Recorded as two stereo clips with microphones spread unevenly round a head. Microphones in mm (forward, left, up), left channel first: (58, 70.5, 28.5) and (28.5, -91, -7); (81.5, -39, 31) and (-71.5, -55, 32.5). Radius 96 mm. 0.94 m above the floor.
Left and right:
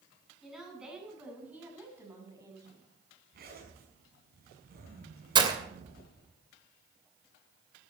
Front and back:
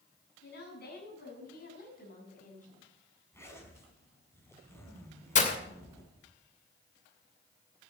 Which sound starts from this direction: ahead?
A woman speaking, at 0.4 s.